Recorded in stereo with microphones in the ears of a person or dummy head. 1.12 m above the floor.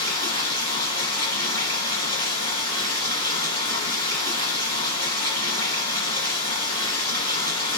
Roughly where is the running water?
Centre.